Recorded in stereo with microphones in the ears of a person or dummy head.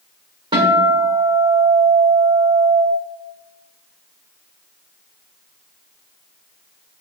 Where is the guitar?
25° right (ahead or behind), 1.6 m.